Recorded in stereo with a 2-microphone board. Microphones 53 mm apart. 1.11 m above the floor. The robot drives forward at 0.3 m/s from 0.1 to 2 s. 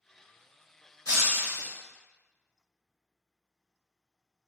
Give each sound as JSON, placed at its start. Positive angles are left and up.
{"t": 1.1, "sound": "breaking glass", "side_deg": 80, "distance_m": 1.4}